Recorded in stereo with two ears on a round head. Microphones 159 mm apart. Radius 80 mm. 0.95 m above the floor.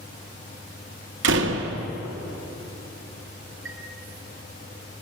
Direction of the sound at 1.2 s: 75° right (ahead or behind).